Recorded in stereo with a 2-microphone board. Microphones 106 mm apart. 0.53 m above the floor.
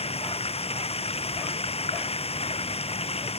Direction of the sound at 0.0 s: 75° left (ahead or behind).